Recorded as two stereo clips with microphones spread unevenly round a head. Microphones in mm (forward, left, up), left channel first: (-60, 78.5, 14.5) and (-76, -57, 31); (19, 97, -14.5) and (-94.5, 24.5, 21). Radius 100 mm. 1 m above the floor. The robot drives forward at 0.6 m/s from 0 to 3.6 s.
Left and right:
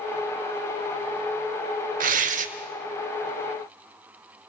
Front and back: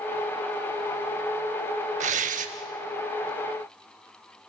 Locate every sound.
2.0 s tearing paper: 105° right, 1.5 m; by 2.5 s 120° right, 1.6 m